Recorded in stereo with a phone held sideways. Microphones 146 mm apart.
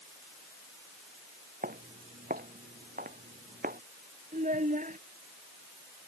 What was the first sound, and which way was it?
Footsteps, 80° right.